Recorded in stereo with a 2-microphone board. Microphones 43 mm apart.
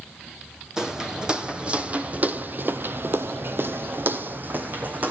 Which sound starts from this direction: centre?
Footsteps, at 0.8 s.